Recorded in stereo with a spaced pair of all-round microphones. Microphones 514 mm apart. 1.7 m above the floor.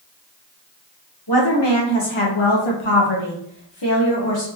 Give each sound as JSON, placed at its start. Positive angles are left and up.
{"t": 1.3, "sound": "a woman speaking", "side_deg": 45, "distance_m": 1.2}